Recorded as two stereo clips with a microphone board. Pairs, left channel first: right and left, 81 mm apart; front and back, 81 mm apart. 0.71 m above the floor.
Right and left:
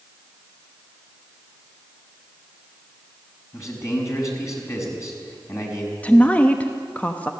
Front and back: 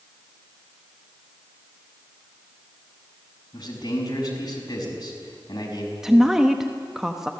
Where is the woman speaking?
110° right, 1.1 m.